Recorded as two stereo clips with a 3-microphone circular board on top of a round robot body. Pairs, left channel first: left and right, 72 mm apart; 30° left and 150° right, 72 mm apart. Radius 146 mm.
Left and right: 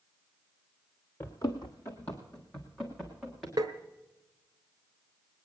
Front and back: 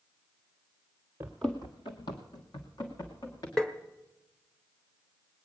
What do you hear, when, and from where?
1.2 s running footsteps: 140° left, 0.9 m; by 3.5 s straight ahead, 3 m
3.6 s tapping: 55° right, 1.0 m